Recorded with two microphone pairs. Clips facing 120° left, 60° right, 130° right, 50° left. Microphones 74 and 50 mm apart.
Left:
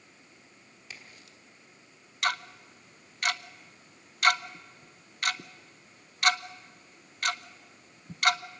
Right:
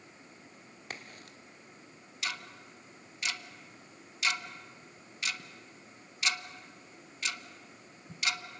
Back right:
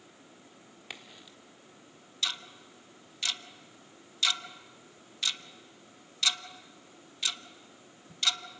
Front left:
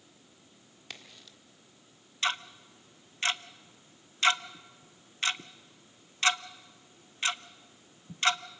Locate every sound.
0.9 s a crack: 60° right, 1.5 m
2.2 s ticking: 100° left, 0.6 m